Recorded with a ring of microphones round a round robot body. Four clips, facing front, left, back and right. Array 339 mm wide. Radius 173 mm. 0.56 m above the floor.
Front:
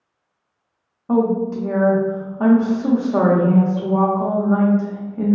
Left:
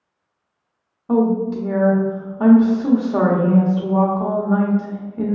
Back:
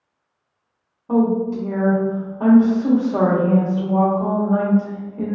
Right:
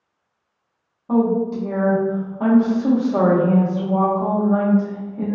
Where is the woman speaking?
45° left, 0.8 m.